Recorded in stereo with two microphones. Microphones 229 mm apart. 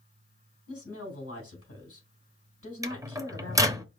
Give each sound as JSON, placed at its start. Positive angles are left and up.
{"t": 0.7, "sound": "a woman speaking", "side_deg": 75, "distance_m": 3.0}
{"t": 2.8, "sound": "a microwave", "side_deg": -15, "distance_m": 0.7}